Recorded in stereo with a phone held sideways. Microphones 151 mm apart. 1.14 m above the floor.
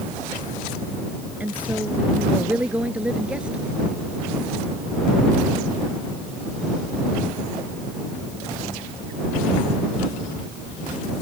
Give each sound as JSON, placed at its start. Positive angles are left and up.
{"t": 1.4, "sound": "a woman speaking", "side_deg": -10}